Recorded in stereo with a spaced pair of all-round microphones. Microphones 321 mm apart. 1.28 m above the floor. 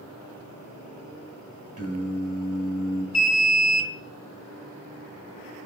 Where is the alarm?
55° left (ahead or behind), 1.0 m.